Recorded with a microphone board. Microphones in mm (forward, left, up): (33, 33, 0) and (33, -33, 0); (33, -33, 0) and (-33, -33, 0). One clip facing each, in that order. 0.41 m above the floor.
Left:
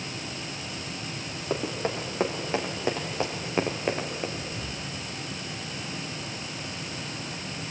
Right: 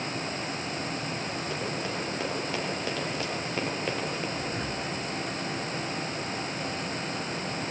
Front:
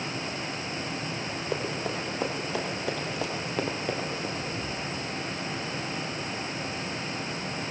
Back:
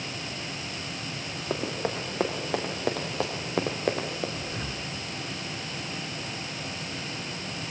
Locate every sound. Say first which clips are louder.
1.5 s running footsteps: left 7 dB, back 2 dB; 145° left, 7 m; by 4.3 s 165° left, 4 m
4.4 s breathing: right 4 dB, front 2 dB; 130° right, 1.2 m